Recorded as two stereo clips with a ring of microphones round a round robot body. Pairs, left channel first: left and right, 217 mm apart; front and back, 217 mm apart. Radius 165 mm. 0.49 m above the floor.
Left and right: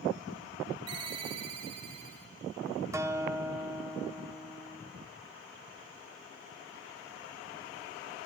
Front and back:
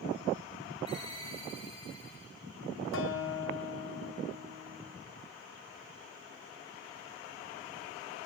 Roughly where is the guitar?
Ahead.